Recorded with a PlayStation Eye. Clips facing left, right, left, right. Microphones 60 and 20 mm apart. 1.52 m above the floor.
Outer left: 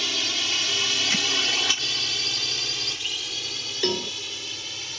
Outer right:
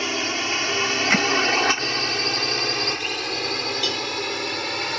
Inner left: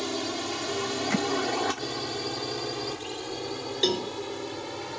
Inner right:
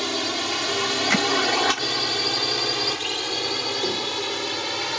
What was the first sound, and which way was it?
A drone, 35° right (ahead or behind).